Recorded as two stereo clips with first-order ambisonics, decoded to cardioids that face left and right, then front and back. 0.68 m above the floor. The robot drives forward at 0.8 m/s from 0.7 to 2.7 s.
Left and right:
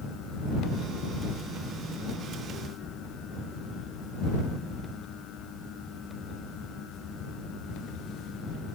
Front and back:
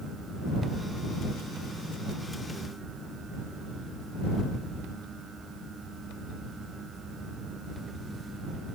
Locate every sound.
Only background noise.